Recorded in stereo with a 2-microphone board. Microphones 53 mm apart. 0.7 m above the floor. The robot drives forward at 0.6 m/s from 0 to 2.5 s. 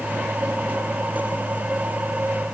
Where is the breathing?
I don't hear breathing.